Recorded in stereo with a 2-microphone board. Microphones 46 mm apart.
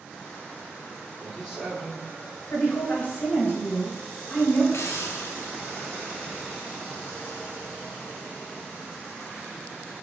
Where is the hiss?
70° left (ahead or behind), 0.5 m.